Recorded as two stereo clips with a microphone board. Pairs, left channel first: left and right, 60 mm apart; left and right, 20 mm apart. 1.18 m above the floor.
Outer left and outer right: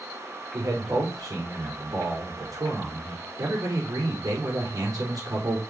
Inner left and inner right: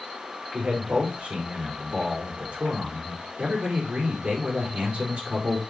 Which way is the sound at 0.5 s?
85° right.